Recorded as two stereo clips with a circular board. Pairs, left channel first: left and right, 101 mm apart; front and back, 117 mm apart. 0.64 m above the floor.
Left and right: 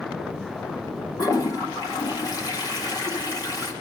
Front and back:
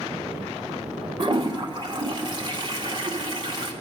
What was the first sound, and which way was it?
A toilet flushing, 135° left.